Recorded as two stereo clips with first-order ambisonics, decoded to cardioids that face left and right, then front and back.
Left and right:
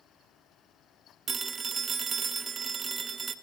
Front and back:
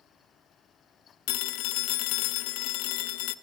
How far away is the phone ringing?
About 0.8 m.